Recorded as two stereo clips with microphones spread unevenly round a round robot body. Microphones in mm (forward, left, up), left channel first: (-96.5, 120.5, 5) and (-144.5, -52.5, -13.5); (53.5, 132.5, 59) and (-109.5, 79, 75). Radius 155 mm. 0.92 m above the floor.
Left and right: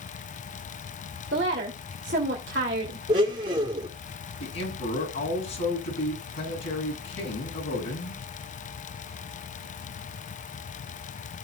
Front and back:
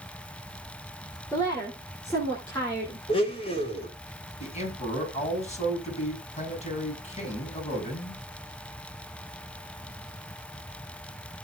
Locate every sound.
1.3 s a woman speaking: 60° right, 2.5 m
3.1 s a blender: 45° right, 2 m
4.4 s a man speaking: 65° left, 7 m